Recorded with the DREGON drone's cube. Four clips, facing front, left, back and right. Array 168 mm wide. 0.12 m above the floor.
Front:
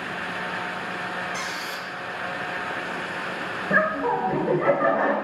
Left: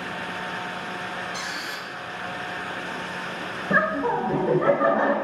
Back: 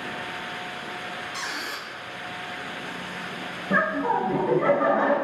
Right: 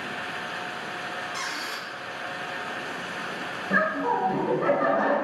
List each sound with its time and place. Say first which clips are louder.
1.3 s a squeak: left 1 dB, front 2 dB; 165° right, 1.4 m
3.7 s laughter: left 2 dB, front 1 dB; 85° left, 1.1 m